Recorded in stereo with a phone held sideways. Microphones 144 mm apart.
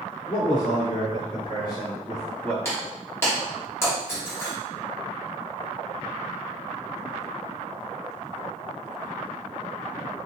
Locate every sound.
0.3 s a man speaking: 75° left (ahead or behind), 1.8 m; by 2.5 s 5° left (ahead or behind), 1.4 m
2.6 s breaking glass: 20° left (ahead or behind), 1.5 m